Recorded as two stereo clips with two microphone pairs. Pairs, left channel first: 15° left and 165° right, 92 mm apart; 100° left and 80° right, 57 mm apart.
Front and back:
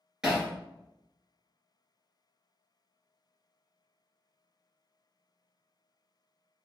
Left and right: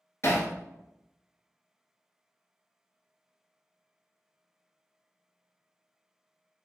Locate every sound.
0.2 s hammering: 115° left, 1.7 m